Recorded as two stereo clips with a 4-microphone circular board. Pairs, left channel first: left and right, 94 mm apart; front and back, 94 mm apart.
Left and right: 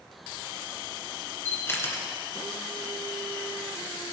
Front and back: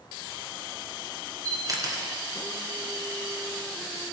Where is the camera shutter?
145° left, 1.9 m.